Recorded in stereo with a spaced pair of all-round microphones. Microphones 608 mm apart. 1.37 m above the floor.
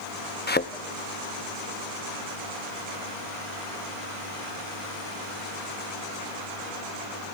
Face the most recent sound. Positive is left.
turn(degrees=15)  # may be behind; listen again after turning